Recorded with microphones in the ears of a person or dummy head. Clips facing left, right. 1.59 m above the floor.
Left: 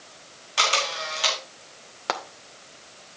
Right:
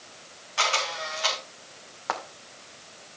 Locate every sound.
0.6 s a camera shutter: 50° left (ahead or behind), 4 m
2.1 s frying: 45° left (ahead or behind), 2.5 m